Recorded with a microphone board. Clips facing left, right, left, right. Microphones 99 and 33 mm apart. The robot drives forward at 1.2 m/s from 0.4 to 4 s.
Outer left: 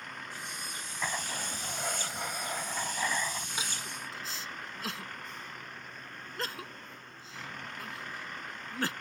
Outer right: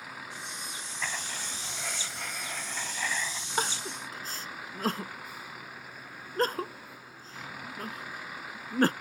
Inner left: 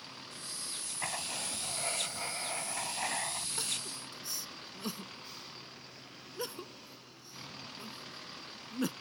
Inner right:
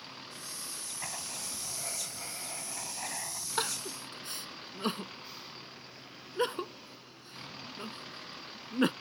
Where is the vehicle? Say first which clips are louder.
Outer right 1 dB, inner right 1 dB; 5° right (ahead or behind).